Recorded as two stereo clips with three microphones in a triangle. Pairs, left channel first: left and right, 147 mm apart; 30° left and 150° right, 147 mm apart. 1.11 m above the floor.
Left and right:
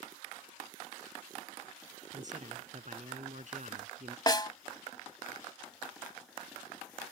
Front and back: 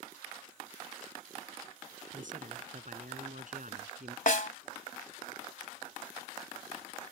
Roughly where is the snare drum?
Ahead left.